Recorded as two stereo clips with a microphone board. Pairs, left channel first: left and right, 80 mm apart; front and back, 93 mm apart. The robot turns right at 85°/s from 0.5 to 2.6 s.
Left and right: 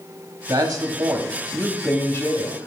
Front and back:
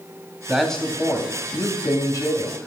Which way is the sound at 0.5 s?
105° right.